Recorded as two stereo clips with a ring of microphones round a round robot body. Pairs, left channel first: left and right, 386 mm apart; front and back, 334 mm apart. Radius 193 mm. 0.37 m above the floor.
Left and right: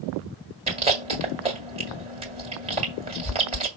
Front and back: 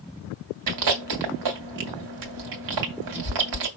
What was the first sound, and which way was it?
Chewing, 160° right.